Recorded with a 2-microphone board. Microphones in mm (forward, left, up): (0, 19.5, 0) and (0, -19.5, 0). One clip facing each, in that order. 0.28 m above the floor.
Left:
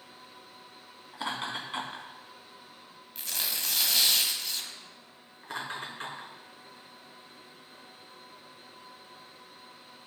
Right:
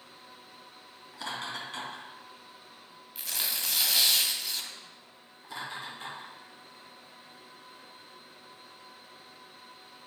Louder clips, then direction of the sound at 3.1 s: Even; 5° right (ahead or behind).